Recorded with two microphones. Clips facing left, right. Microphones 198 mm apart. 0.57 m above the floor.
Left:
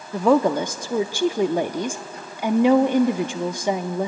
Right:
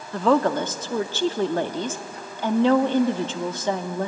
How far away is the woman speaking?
About 0.6 m.